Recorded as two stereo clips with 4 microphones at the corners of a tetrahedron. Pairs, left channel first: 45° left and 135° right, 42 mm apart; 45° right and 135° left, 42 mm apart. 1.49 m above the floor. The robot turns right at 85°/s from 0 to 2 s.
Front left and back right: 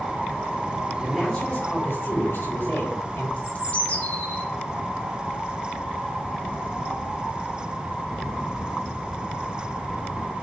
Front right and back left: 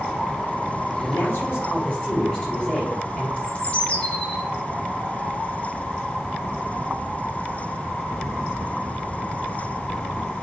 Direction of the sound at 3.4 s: 10° left.